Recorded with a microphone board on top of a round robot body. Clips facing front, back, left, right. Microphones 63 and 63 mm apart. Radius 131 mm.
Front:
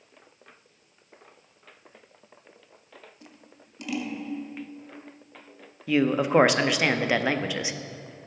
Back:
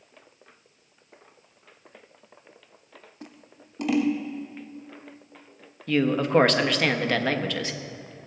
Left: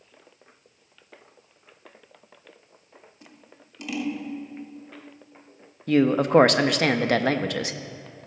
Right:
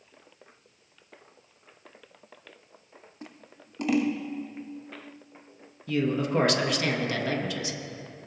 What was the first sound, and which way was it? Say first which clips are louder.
Scissors: back 4 dB, right 4 dB; 135° right.